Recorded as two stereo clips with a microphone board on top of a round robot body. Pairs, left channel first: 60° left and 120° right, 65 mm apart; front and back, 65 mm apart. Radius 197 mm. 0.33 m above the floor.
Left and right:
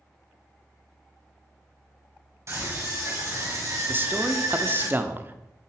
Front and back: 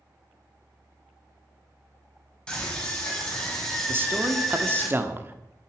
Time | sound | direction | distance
2.5 | a scream | 75° right | 5.5 m
3.9 | a man speaking | 155° right | 1.5 m